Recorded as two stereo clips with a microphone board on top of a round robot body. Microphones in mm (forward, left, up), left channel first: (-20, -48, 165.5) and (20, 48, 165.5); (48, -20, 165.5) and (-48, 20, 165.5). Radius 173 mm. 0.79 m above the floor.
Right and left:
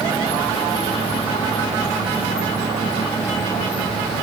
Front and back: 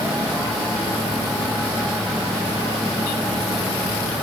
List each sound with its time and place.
Only background noise.